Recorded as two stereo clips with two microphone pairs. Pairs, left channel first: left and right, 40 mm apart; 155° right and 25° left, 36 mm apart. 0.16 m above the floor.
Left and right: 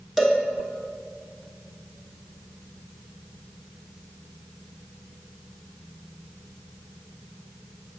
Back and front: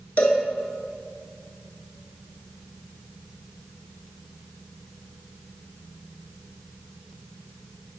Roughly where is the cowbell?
Behind.